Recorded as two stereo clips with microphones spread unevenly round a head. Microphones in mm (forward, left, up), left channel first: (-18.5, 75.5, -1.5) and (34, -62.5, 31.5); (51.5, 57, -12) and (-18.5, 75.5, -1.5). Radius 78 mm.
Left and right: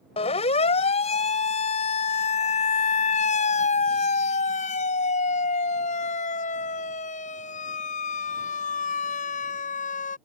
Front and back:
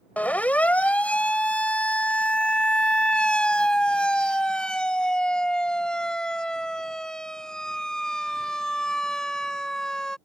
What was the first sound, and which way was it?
A siren, 55° left.